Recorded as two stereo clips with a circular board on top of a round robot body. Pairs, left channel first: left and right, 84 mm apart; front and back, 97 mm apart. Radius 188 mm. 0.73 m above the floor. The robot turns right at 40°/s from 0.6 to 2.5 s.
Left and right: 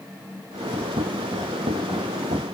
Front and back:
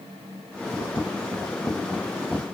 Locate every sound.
Only background noise.